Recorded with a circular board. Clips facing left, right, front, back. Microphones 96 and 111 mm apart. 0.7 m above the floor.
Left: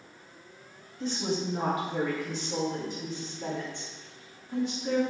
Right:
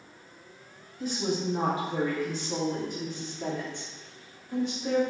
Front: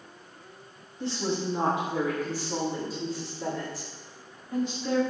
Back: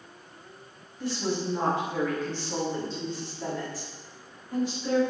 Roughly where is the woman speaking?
Ahead.